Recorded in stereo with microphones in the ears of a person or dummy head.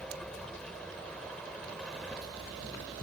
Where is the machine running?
5° left (ahead or behind).